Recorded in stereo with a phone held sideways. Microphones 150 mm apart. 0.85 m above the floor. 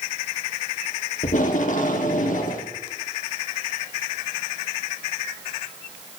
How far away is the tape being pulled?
About 0.9 m.